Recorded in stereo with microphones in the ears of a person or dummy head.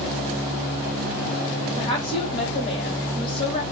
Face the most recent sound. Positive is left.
turn(degrees=35)  # may be behind; listen again after turning